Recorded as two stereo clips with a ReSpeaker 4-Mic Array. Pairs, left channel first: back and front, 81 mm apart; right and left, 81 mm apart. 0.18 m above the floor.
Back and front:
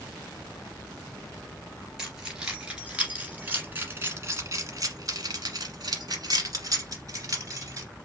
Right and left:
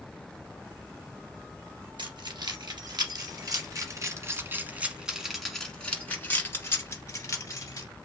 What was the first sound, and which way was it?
Keys jangling, 85° left.